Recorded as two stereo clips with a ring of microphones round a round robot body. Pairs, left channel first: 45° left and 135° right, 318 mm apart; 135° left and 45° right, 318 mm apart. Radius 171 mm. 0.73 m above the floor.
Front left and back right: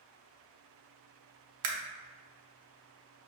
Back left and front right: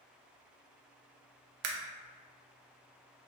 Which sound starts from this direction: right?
A camera shutter, at 1.6 s.